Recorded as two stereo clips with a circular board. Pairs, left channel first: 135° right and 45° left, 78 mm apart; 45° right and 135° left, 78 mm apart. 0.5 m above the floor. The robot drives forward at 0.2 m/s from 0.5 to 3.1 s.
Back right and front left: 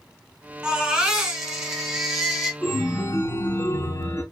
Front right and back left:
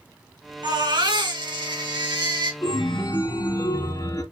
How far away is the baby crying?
About 2 m.